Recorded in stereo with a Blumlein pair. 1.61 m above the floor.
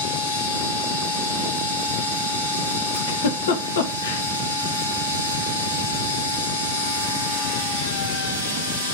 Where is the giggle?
60° left, 1.5 m.